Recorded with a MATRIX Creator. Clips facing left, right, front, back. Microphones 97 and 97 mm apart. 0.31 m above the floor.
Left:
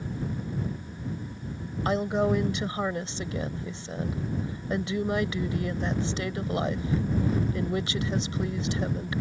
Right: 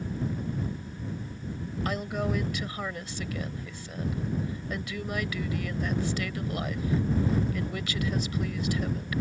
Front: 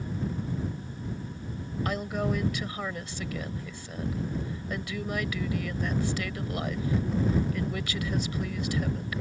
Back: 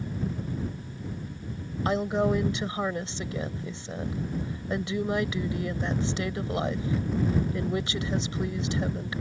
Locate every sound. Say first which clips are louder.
1.9 s a woman speaking: left 7 dB, back 6 dB; 135° left